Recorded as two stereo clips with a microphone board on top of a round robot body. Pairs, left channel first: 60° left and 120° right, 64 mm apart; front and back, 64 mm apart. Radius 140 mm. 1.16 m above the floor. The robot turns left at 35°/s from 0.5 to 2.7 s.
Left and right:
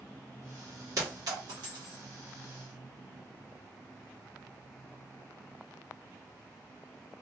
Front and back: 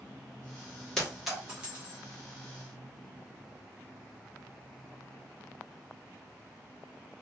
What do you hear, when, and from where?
1.0 s a clink: 85° right, 1.3 m; by 2.0 s 120° right, 1.3 m